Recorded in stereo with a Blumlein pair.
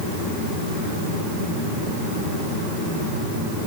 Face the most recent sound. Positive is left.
No sound to turn to.